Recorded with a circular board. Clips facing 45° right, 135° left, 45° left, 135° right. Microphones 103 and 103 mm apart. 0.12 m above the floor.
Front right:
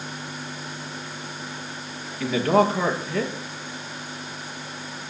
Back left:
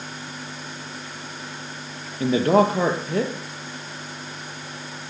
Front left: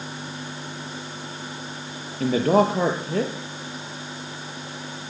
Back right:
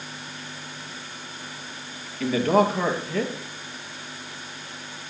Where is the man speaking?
90° left, 3 m.